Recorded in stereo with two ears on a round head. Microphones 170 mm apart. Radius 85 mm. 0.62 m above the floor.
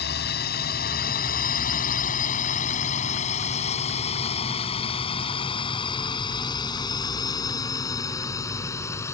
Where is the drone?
50° left (ahead or behind); by 9.1 s 15° left (ahead or behind).